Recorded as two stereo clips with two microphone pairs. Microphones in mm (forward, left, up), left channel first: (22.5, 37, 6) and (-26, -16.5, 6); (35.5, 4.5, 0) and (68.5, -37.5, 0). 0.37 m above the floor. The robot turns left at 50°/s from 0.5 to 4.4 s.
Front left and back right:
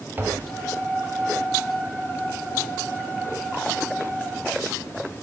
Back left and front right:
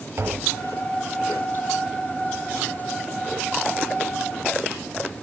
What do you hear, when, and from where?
0.2 s tapping: 75° right, 1.9 m; by 0.6 s 80° right, 1.9 m